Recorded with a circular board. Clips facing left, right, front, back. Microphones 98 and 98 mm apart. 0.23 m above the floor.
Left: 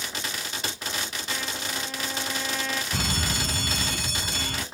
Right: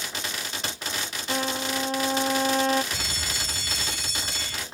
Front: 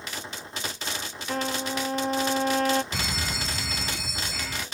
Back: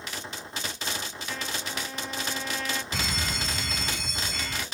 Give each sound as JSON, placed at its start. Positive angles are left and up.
{"t": 1.3, "sound": "a trumpet", "azimuth_deg": -40}
{"t": 2.9, "sound": "an alarm", "azimuth_deg": 85}